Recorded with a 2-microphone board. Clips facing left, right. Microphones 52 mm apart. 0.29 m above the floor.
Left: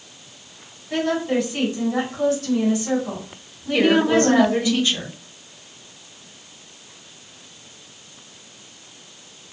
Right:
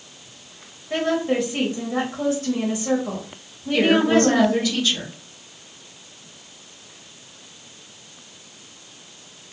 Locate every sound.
0.9 s a woman speaking: 25° right (ahead or behind), 1.3 m
3.7 s a woman speaking: 25° left (ahead or behind), 1.1 m